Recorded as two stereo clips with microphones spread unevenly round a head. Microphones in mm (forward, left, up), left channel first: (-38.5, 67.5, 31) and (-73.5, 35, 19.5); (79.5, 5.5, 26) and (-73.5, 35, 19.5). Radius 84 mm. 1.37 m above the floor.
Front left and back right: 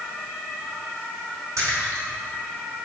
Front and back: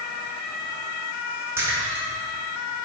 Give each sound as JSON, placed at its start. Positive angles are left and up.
{"t": 1.6, "sound": "a splash", "azimuth_deg": -115, "distance_m": 1.3}